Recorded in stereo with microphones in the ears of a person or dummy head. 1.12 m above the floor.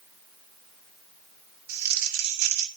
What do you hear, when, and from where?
1.7 s crumpling: 55° right (ahead or behind), 2.0 m